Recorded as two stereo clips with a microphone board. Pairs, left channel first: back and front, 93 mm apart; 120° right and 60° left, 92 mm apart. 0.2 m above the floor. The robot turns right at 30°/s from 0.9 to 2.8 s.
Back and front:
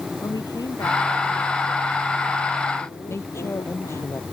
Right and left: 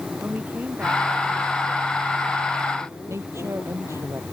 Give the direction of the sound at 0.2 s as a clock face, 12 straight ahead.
8 o'clock.